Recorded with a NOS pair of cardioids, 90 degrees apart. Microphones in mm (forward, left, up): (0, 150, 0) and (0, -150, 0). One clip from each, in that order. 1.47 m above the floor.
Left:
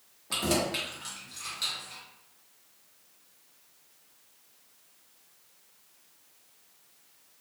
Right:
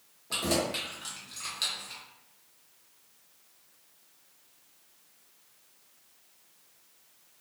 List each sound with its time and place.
0.3 s keys jangling: 15° left, 1.2 m; by 2.0 s 45° right, 1.0 m